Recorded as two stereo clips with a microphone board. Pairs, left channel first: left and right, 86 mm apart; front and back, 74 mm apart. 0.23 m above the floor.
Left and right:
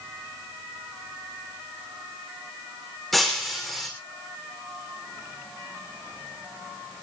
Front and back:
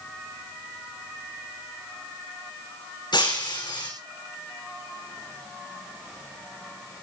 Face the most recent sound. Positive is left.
turn(degrees=0)